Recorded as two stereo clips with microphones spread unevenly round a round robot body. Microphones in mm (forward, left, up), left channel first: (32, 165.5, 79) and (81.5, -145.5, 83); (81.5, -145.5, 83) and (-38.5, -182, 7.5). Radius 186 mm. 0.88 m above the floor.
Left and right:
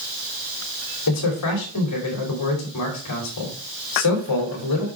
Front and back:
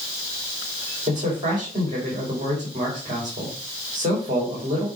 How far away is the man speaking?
About 3 m.